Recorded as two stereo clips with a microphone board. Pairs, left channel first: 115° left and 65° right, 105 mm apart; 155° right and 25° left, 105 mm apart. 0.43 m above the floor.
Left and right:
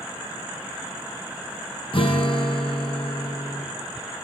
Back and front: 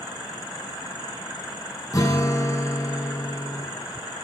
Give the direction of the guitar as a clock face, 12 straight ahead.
7 o'clock.